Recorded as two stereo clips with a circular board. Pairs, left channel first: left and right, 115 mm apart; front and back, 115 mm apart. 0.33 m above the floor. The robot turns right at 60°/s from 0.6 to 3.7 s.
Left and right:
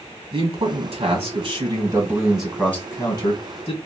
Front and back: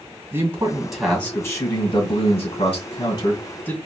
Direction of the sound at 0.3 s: 115° right.